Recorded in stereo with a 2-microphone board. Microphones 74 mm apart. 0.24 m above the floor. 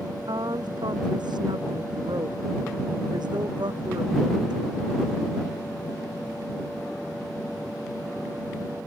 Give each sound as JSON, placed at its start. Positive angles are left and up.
{"t": 0.3, "sound": "a woman speaking", "side_deg": -85}